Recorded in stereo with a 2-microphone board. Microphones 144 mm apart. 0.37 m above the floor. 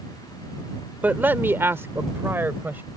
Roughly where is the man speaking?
Centre.